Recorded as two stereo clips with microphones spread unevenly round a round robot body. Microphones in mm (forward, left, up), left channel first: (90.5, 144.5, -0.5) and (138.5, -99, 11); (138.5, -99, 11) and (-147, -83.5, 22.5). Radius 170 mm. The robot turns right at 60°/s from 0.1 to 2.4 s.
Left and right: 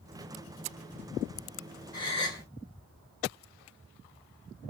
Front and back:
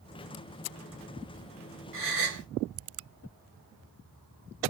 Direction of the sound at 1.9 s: 145° left.